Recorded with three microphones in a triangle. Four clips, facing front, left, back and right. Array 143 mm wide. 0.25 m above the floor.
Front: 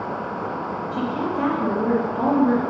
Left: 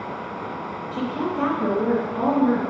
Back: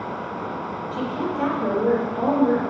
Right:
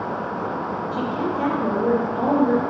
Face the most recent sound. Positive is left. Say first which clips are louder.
# even, front 1 dB
turn(degrees=75)